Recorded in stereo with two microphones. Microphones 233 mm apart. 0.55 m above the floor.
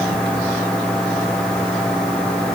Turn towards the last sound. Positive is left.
No sound to turn to.